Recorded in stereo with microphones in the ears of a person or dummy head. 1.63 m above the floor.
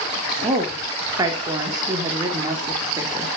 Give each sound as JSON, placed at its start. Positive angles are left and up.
{"t": 0.4, "sound": "a woman speaking", "side_deg": -20, "distance_m": 3.5}